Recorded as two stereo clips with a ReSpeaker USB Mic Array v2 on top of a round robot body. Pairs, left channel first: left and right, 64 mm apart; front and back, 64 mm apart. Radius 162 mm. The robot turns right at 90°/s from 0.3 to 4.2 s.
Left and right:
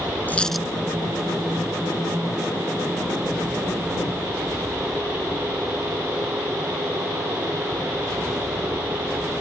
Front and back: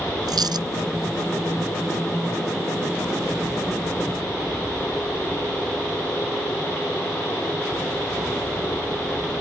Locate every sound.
0.3 s a dropped coin: 155° left; by 0.7 s 170° right